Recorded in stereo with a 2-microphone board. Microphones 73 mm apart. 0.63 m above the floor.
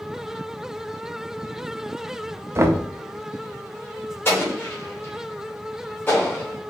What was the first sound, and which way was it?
Knocking, 40° right (ahead or behind).